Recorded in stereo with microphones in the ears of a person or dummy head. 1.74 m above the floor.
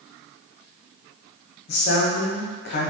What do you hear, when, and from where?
1.7 s a man speaking: 65° left (ahead or behind), 1.0 m